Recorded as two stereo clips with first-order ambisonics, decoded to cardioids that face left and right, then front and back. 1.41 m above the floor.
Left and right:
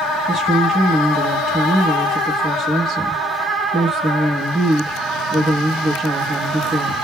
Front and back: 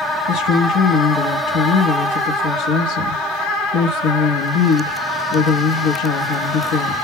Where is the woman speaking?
10° right, 0.8 m.